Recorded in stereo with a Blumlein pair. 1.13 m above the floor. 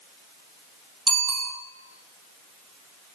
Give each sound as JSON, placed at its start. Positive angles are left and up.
{"t": 1.1, "sound": "a bicycle bell", "azimuth_deg": -20, "distance_m": 5.5}